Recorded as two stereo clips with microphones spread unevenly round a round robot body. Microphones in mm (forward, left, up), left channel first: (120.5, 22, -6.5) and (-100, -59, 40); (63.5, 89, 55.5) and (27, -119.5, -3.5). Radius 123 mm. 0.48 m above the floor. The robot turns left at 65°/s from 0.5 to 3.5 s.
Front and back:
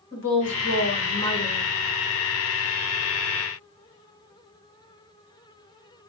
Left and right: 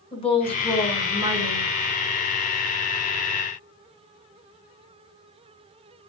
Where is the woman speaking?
10° left, 2.5 m; by 1.7 s 65° right, 2.5 m.